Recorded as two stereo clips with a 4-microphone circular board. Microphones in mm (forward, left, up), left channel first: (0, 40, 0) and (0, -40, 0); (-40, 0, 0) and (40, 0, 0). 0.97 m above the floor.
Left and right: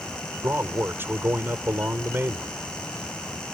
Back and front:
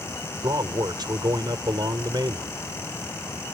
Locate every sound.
0.4 s a man speaking: 30° right